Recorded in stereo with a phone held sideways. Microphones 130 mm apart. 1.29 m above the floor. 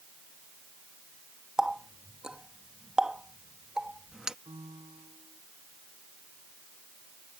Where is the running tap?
5° right (ahead or behind).